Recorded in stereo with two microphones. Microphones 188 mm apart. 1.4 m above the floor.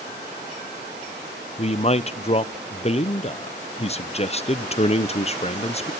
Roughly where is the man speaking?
Left.